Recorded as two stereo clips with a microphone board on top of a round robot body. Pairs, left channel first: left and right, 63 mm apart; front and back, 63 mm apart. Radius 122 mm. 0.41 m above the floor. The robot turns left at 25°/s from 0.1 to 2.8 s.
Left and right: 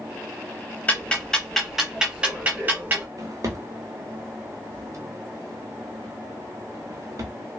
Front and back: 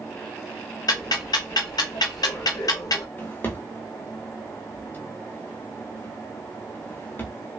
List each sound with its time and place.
0.9 s ticking: 20° left, 0.6 m; by 3.0 s 30° right, 0.6 m
3.2 s a drawer: 55° right, 0.9 m